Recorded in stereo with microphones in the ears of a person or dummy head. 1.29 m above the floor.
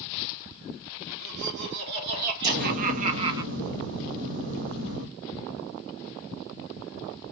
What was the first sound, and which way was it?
Laughter, 75° right (ahead or behind).